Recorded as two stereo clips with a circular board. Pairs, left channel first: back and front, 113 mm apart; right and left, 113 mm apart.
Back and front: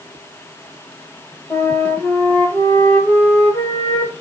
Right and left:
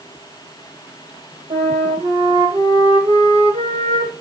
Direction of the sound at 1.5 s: 100° left.